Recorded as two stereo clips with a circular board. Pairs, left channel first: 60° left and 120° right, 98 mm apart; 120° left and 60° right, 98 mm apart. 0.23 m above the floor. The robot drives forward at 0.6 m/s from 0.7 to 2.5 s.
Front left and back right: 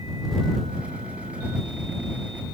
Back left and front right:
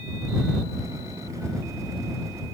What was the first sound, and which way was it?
Only background noise.